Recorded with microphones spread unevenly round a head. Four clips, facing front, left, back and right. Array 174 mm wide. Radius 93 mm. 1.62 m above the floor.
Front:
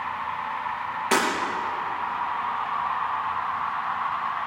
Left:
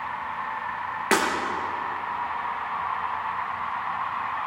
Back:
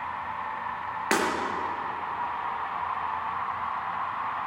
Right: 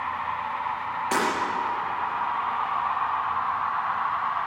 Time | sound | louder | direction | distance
1.1 | breaking glass | left 3 dB, front 3 dB | 100° left | 4.5 m